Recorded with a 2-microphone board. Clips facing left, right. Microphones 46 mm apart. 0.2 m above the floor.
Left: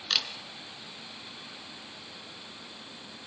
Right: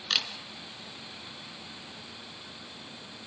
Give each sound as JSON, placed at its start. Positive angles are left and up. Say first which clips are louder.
{"t": 0.1, "sound": "a camera shutter", "louder": "right 1 dB", "side_deg": -10, "distance_m": 3.0}